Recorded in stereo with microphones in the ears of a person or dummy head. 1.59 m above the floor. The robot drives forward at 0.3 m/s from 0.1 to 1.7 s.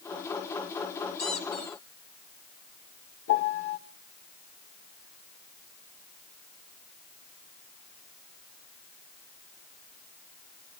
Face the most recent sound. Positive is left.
turn(degrees=70)  # may be behind; listen again after turning